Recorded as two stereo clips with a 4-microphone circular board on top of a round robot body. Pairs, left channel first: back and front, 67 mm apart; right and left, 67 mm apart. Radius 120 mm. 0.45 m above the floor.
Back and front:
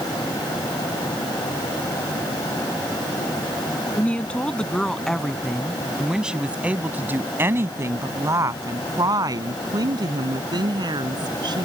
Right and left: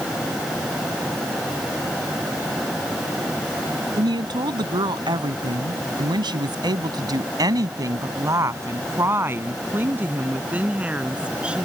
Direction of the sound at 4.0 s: 110° left.